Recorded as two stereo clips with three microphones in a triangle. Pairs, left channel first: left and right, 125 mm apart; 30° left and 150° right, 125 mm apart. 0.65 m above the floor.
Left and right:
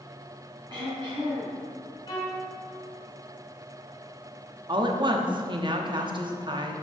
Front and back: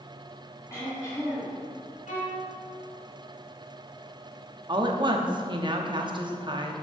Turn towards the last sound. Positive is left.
turn(degrees=-120)